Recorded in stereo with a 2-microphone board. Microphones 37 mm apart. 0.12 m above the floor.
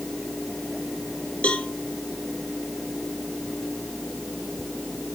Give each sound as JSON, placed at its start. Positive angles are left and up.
{"t": 1.4, "sound": "a cowbell", "side_deg": 40, "distance_m": 1.8}